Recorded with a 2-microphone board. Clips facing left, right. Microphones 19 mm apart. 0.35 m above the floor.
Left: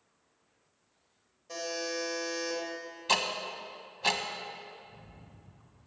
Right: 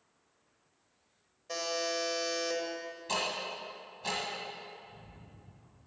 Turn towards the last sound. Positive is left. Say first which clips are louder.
# even
turn(degrees=35)  # may be behind; listen again after turning